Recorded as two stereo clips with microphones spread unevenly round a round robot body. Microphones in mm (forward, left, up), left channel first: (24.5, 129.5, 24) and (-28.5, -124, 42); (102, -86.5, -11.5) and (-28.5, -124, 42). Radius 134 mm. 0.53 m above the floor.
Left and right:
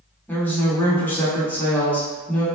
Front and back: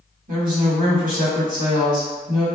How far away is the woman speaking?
About 1.2 m.